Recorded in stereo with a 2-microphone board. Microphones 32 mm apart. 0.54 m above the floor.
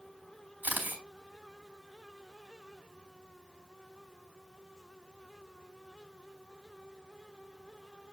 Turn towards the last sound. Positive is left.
turn(degrees=-70)  # may be behind; listen again after turning